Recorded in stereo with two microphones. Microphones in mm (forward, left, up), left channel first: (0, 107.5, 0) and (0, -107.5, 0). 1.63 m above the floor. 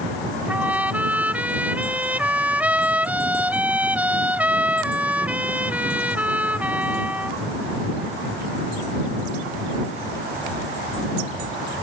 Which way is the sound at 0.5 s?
5° right (ahead or behind).